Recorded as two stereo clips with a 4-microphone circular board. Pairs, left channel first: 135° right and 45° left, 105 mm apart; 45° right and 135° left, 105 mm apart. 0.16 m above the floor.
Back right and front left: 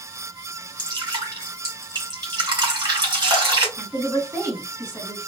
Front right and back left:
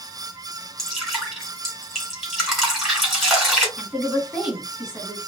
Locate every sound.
0.8 s dripping: 45° left, 2 m
3.8 s a woman speaking: 60° left, 1.6 m